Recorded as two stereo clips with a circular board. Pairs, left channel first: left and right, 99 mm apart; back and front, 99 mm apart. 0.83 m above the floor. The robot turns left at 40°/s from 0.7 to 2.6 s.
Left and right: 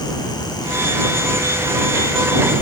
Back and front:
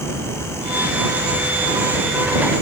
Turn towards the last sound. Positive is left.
No sound to turn to.